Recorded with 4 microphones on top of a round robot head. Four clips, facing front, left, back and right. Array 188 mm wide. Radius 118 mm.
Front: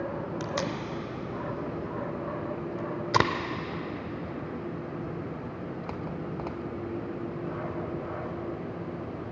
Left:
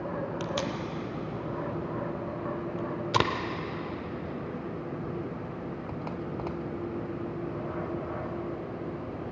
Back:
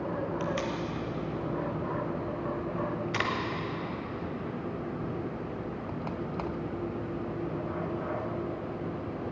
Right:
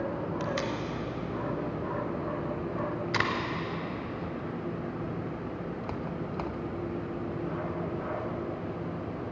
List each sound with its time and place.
0.4 s tape being pulled: 35° left, 0.6 m